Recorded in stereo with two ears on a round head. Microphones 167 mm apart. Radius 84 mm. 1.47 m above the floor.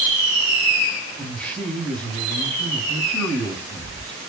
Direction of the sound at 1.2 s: 10° left (ahead or behind).